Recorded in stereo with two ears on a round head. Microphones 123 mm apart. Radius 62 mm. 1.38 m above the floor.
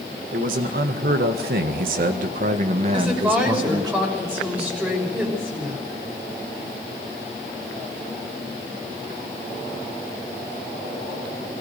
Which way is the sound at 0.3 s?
65° right (ahead or behind).